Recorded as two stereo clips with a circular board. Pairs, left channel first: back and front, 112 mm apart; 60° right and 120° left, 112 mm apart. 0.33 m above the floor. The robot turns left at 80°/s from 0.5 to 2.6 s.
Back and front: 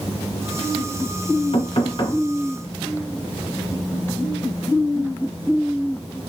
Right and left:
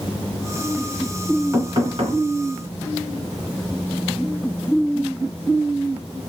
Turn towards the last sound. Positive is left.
turn(degrees=100)